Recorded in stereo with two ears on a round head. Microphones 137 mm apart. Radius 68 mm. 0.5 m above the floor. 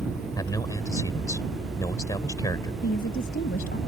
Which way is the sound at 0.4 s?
25° left (ahead or behind).